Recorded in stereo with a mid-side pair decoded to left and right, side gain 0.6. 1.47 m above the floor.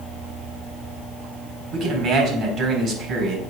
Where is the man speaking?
50° right, 3.5 m.